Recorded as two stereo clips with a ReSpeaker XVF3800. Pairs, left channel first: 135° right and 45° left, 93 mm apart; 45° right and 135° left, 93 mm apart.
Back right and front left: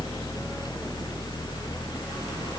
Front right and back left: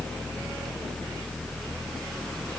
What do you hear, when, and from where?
Only background noise.